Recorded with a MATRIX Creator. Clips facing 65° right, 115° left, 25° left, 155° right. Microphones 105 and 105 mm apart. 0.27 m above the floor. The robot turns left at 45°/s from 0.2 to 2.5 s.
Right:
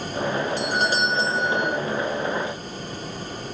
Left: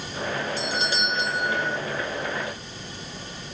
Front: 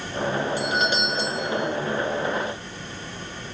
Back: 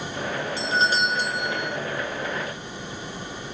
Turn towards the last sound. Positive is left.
turn(degrees=180)